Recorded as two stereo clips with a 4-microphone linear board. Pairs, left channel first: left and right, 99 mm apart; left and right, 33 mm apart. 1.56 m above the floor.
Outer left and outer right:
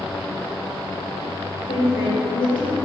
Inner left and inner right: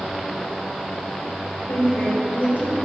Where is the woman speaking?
65° left (ahead or behind), 3 m; by 2.8 s 55° left (ahead or behind), 2 m.